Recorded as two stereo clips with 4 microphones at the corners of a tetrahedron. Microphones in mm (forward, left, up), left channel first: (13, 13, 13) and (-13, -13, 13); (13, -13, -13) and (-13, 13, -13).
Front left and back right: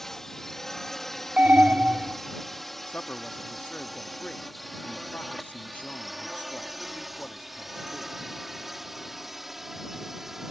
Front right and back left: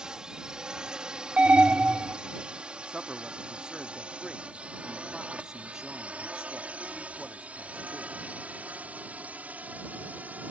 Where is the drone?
110° left; by 10.5 s 145° left.